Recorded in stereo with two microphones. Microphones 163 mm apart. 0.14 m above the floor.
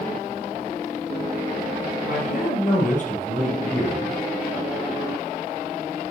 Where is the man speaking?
60° left (ahead or behind), 2.5 m; by 4.2 s 40° left (ahead or behind), 4 m.